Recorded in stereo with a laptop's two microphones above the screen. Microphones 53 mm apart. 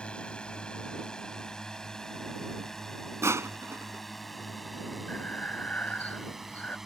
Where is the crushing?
65° right (ahead or behind).